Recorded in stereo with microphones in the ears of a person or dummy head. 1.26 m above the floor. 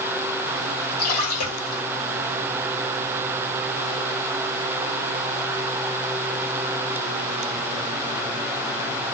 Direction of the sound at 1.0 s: 75° left (ahead or behind).